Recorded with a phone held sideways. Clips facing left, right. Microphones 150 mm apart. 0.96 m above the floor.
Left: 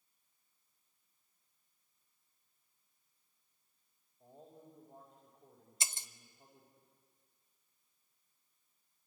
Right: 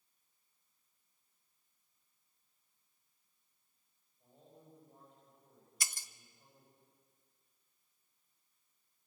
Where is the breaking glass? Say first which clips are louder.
Left 1 dB; 25° left (ahead or behind), 0.7 m.